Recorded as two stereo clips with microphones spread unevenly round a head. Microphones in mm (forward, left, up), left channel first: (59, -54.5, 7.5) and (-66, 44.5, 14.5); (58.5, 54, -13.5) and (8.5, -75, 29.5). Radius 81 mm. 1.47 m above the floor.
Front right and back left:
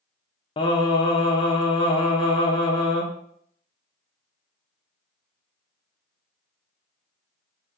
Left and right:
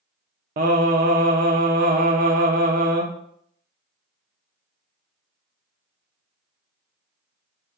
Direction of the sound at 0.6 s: 100° right.